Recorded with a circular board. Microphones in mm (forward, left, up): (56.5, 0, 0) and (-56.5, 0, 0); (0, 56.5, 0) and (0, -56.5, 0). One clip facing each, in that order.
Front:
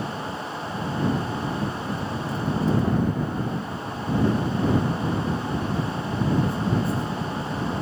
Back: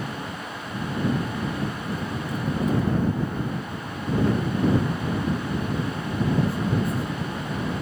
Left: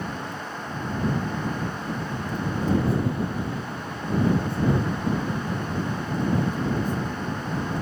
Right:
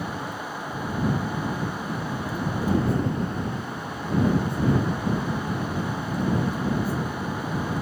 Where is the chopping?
No chopping in this recording.